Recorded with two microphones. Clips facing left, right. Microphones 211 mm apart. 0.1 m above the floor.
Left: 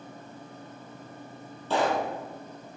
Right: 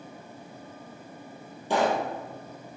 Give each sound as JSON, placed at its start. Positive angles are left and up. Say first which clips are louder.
{"t": 1.7, "sound": "a pop", "louder": "right 1 dB", "side_deg": -15, "distance_m": 1.7}